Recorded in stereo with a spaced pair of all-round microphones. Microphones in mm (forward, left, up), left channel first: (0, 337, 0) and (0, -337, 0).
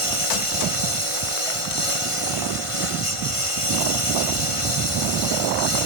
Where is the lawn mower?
50° left (ahead or behind).